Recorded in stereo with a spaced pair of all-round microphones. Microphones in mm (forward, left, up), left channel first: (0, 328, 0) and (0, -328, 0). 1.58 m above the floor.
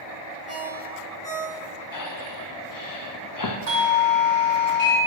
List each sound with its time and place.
0.5 s a ringtone: 65° left (ahead or behind), 1.6 m
1.9 s breathing: 35° left (ahead or behind), 0.5 m
3.7 s a doorbell: 75° right (ahead or behind), 1.3 m